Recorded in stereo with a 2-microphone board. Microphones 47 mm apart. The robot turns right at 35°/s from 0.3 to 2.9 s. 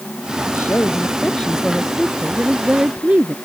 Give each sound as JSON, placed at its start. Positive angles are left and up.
{"t": 0.5, "sound": "a woman speaking", "azimuth_deg": 125}